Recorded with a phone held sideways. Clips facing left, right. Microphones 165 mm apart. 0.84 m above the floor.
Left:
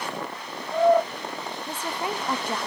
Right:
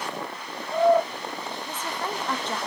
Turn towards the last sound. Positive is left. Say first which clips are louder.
# left 3 dB
turn(degrees=10)  # may be behind; listen again after turning